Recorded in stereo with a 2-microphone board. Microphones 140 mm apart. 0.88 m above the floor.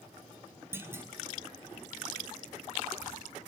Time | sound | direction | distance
0.7 | a clunk | 15° right (ahead or behind) | 4 m